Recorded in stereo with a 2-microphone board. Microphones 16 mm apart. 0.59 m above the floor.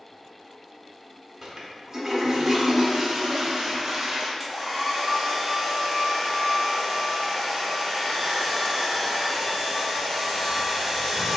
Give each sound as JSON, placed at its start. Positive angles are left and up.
{"t": 1.4, "sound": "a toilet flushing", "side_deg": -35, "distance_m": 0.5}
{"t": 4.4, "sound": "a hair dryer", "side_deg": -20, "distance_m": 0.7}